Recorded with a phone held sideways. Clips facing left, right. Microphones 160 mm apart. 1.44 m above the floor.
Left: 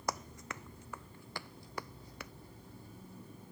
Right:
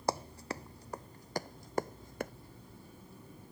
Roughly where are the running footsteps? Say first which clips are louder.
Right 5 dB; right.